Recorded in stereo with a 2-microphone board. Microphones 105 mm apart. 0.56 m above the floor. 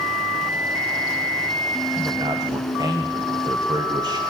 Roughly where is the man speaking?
Right.